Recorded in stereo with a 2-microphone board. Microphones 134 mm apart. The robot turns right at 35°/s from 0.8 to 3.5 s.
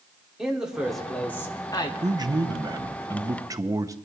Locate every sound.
0.4 s a man speaking: 5° right, 1.8 m; by 1.9 s 35° left, 1.8 m
2.0 s a man speaking: 30° right (ahead or behind), 0.7 m; by 4.0 s 25° right (ahead or behind), 0.7 m